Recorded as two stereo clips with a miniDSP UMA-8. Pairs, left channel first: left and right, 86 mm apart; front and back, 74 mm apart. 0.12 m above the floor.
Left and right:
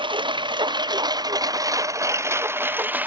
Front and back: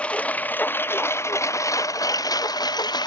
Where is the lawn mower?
75° right; by 3.1 s 20° right.